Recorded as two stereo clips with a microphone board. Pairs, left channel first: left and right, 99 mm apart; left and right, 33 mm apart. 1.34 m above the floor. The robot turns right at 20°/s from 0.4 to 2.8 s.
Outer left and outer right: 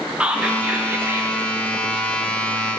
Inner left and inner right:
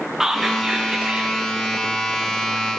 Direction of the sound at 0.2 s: 15° right (ahead or behind).